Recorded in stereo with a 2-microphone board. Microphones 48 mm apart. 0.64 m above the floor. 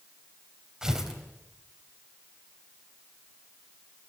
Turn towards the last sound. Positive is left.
turn(degrees=-10)  # may be behind; listen again after turning